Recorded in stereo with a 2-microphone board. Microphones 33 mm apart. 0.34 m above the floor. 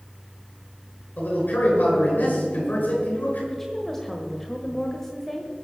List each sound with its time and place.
1.2 s a man speaking: 75° left (ahead or behind), 5.5 m
3.5 s a woman speaking: 10° left (ahead or behind), 1.2 m